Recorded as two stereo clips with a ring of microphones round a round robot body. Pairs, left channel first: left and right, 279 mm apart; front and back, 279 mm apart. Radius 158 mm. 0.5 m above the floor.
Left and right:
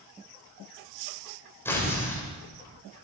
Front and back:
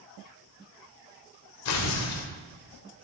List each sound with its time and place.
1.6 s tearing paper: 10° left, 2.5 m